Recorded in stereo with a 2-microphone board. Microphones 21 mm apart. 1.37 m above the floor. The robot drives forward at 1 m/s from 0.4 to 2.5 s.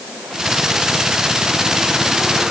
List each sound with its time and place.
Only background noise.